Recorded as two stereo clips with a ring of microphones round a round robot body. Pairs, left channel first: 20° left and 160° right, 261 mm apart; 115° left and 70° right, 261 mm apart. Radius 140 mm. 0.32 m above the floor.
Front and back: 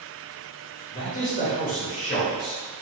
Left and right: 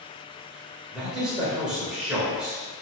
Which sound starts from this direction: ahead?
A man speaking, at 0.9 s.